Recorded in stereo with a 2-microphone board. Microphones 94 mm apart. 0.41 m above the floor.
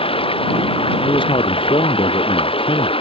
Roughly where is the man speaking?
Left.